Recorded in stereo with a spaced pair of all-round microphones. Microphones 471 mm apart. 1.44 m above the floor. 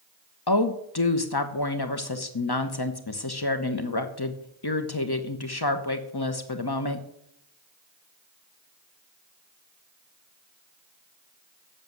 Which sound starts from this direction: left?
A woman speaking, at 0.5 s.